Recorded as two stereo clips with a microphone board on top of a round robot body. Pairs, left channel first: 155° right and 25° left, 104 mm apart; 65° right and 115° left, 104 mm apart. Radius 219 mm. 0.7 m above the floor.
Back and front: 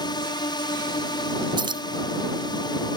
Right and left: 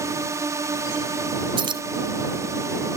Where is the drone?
165° left.